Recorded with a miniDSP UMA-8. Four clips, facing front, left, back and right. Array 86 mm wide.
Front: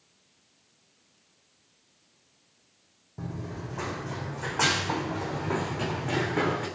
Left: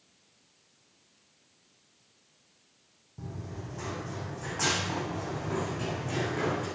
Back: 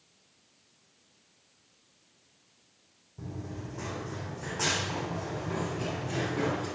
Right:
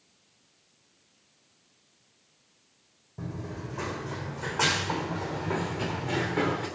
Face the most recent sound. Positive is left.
turn(degrees=-20)